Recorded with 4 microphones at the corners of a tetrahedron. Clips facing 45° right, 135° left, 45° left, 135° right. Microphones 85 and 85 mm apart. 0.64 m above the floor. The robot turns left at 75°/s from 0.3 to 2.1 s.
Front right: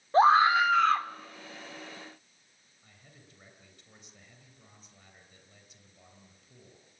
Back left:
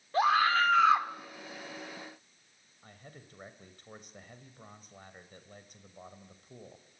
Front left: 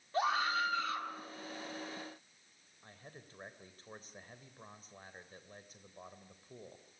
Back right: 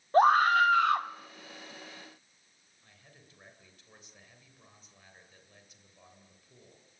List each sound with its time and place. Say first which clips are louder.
0.1 s a scream: front right 5 dB, back right 12 dB; 100° right, 1.3 m; by 1.1 s 160° right, 1.3 m
2.8 s a man speaking: back left 7 dB, front left 6 dB; 95° left, 3 m